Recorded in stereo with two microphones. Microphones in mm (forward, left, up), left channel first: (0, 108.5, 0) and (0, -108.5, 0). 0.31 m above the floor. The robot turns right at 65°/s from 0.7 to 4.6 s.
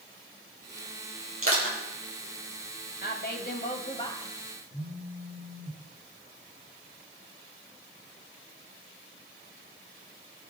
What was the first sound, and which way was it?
Crushing, 80° right.